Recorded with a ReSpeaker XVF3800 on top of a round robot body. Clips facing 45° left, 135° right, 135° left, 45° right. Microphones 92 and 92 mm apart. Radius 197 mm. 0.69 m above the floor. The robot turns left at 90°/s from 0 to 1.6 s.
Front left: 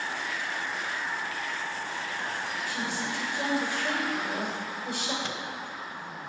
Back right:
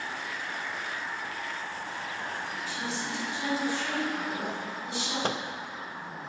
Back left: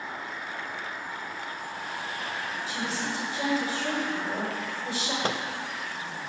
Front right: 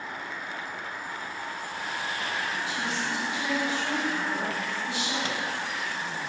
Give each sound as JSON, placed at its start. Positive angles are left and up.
{"t": 2.7, "sound": "a woman speaking", "azimuth_deg": 85, "distance_m": 4.0}
{"t": 5.2, "sound": "a microwave", "azimuth_deg": 180, "distance_m": 0.6}